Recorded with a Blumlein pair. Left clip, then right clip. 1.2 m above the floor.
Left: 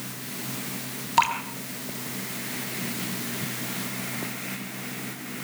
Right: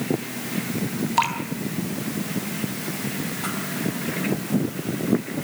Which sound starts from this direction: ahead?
Dripping, at 1.2 s.